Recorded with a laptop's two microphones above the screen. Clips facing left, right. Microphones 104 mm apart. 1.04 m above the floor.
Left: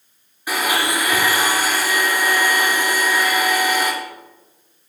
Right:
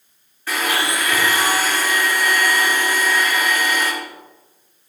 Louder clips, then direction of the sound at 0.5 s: Left 1 dB; 15° left (ahead or behind).